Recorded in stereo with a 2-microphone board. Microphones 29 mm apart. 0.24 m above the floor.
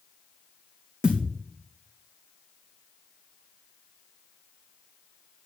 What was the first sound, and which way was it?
A thud, 30° right (ahead or behind).